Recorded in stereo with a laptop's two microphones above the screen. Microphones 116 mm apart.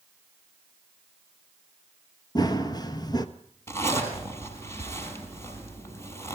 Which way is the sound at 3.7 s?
25° left (ahead or behind).